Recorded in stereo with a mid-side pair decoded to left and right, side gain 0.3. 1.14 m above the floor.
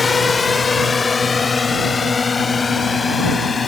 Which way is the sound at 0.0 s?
35° left.